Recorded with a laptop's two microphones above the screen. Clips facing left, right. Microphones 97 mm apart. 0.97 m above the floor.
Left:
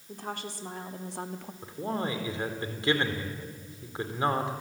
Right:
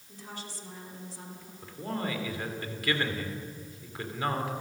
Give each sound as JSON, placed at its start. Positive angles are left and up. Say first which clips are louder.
{"t": 0.1, "sound": "a woman speaking", "louder": "left 6 dB", "side_deg": 55, "distance_m": 2.0}
{"t": 1.6, "sound": "a man speaking", "louder": "left 2 dB", "side_deg": 25, "distance_m": 3.5}